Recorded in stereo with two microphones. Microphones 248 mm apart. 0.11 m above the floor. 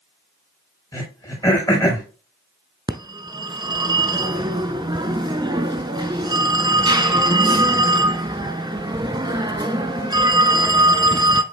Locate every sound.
0.9 s throat clearing: 15° left (ahead or behind), 5.5 m
2.9 s a phone ringing: 20° right (ahead or behind), 0.6 m